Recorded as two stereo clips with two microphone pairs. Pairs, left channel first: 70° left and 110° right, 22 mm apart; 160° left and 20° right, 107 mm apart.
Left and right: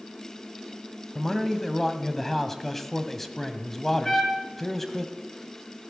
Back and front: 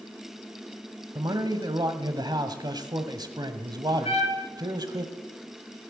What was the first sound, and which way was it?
A man speaking, 5° right.